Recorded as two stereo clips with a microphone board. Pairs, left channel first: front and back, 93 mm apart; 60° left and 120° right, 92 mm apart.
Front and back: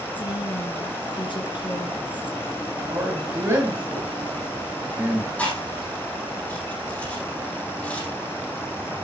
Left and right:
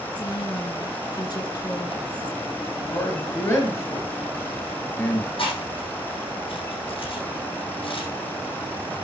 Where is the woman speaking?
20° left, 2.5 m.